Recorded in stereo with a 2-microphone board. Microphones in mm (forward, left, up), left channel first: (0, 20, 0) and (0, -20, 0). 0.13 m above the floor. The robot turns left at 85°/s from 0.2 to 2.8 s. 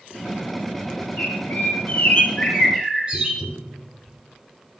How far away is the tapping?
About 2.5 m.